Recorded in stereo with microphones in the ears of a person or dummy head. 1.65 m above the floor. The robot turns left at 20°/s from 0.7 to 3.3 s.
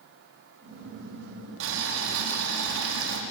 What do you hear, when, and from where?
1.6 s boiling: 70° right, 4 m; by 3.2 s 100° right, 4 m